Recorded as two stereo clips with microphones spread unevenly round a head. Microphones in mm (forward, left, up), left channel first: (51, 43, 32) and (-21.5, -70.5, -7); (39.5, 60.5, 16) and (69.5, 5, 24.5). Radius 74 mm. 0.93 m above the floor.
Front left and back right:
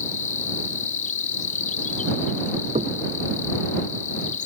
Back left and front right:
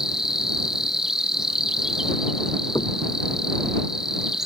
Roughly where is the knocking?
Behind.